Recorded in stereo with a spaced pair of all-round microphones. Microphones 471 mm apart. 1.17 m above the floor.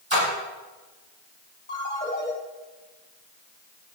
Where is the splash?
75° right (ahead or behind), 6.5 m.